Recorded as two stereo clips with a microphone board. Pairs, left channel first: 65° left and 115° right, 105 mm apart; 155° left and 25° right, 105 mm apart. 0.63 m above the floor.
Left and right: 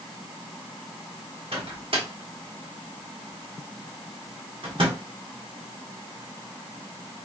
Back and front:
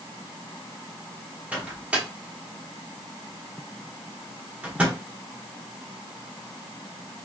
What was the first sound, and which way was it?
A microwave, 100° right.